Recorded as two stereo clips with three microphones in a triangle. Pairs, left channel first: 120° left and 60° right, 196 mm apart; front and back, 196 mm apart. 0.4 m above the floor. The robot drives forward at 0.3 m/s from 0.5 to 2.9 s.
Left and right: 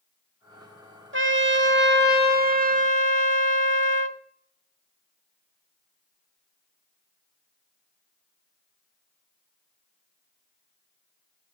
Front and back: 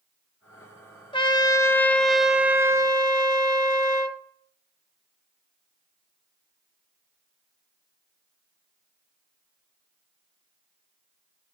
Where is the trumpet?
65° right, 0.8 m; by 4.2 s 110° right, 0.7 m.